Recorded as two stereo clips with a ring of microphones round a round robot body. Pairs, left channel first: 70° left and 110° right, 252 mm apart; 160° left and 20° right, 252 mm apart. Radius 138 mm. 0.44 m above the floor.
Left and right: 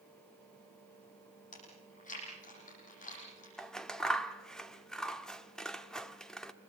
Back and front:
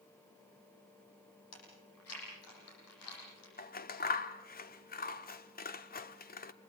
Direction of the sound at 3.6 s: 155° left.